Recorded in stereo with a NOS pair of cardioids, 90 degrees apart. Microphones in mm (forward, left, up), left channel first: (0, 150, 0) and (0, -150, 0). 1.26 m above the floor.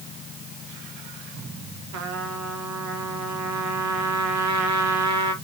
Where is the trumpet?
70° right, 1.7 m.